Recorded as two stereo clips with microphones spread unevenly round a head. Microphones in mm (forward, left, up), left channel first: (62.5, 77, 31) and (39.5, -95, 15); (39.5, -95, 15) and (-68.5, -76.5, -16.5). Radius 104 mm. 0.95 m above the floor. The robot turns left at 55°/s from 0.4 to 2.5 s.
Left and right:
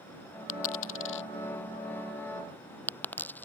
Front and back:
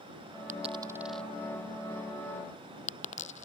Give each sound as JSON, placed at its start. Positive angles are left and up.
{"t": 0.5, "sound": "a dropped coin", "azimuth_deg": 115}